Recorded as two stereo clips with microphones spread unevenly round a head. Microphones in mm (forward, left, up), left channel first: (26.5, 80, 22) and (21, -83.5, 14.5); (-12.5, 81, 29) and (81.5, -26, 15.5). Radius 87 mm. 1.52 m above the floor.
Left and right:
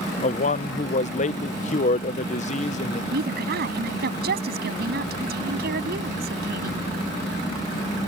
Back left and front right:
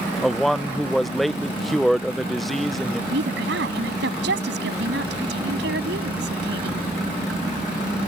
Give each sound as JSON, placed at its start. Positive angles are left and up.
{"t": 0.2, "sound": "a man speaking", "azimuth_deg": 45}
{"t": 3.1, "sound": "a woman speaking", "azimuth_deg": -65}